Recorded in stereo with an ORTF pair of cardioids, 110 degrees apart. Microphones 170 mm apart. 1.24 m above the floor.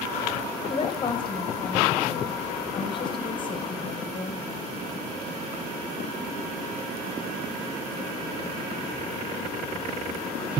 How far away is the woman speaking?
About 0.9 m.